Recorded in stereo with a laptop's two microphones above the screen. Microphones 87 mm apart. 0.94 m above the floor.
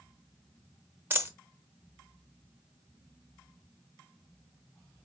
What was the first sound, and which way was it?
A dropped coin, 25° right (ahead or behind).